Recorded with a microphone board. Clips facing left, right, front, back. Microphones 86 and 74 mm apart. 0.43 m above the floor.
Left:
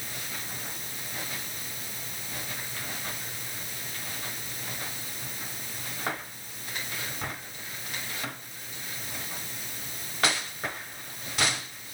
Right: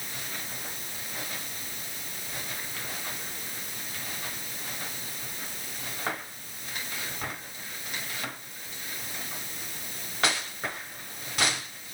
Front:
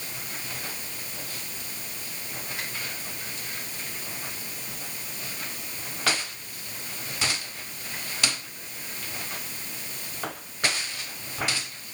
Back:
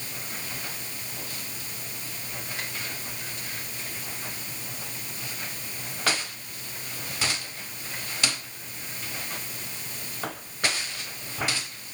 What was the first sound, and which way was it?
Only background noise.